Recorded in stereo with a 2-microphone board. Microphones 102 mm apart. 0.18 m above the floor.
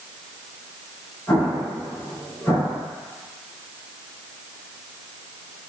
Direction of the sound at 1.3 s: 35° left (ahead or behind).